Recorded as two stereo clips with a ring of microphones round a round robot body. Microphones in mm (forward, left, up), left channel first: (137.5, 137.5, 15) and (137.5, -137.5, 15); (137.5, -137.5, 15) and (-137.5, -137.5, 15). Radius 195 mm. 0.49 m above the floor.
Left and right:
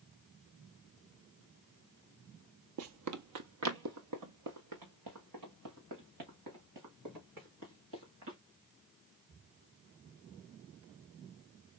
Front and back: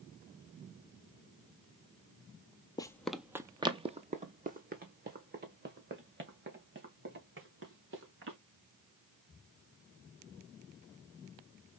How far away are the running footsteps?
About 0.8 m.